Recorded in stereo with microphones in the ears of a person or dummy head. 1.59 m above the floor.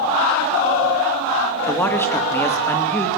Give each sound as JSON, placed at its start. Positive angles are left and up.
{"t": 1.7, "sound": "a man speaking", "side_deg": 15, "distance_m": 2.5}